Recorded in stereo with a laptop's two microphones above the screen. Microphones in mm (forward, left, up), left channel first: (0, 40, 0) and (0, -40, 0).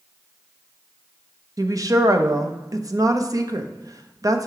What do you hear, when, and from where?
1.6 s a woman speaking: 45° right (ahead or behind), 0.6 m